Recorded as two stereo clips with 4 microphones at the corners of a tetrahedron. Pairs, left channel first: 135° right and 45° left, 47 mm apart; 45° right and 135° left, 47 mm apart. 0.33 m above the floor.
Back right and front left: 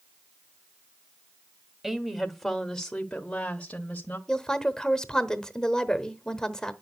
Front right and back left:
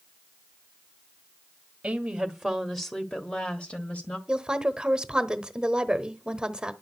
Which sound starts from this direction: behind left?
A woman speaking, at 1.8 s.